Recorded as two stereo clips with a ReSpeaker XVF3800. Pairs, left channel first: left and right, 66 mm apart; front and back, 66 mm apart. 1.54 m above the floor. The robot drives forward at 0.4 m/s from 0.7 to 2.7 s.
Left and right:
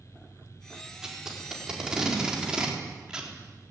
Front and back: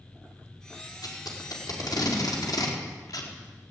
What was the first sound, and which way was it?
Tape being pulled, 10° right.